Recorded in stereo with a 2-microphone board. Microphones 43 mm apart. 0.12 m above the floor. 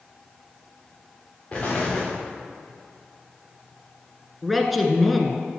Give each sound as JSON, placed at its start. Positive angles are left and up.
{"t": 1.5, "sound": "an explosion", "side_deg": 30, "distance_m": 3.0}
{"t": 4.4, "sound": "a man speaking", "side_deg": 0, "distance_m": 1.3}